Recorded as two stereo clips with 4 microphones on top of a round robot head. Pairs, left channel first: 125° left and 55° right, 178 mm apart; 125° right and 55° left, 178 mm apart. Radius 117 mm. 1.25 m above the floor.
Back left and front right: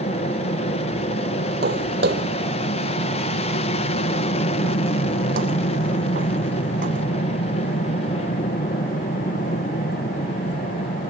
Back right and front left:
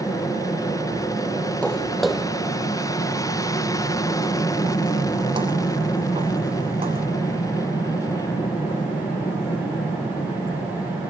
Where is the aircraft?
170° left.